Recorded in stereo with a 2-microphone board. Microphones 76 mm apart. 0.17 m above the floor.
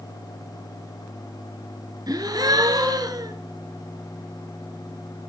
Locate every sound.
2.1 s a gasp: 60° right (ahead or behind), 1.9 m